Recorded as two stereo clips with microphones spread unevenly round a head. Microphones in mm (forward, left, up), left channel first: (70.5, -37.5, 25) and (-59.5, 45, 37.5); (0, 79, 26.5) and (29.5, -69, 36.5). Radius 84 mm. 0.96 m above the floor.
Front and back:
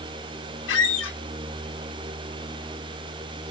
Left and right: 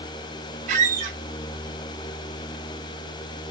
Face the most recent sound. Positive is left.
turn(degrees=-40)